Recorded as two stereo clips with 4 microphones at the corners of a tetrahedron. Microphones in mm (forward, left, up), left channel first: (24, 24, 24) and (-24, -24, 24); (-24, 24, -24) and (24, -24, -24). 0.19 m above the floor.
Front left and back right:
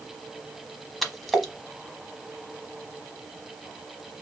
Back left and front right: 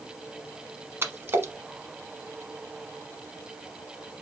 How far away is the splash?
About 1.0 m.